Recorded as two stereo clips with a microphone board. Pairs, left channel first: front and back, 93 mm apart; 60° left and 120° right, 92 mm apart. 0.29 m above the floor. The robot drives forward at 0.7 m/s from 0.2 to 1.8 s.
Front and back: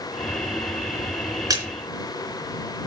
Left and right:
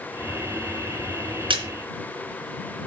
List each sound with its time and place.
1.5 s a splash: 130° right, 3 m; by 1.6 s 135° right, 3 m